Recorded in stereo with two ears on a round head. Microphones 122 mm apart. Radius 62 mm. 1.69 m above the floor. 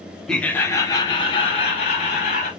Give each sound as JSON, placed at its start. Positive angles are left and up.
{"t": 0.3, "sound": "laughter", "side_deg": 5, "distance_m": 1.0}